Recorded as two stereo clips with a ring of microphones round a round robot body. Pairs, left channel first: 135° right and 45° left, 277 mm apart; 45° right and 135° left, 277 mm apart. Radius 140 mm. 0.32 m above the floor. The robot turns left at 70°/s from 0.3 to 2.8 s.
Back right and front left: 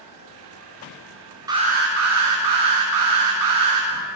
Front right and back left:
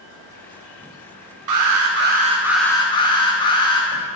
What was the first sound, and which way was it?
An alarm, 120° left.